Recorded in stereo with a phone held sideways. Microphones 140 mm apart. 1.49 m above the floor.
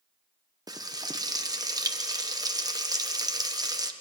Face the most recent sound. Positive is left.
turn(degrees=-25)  # may be behind; listen again after turning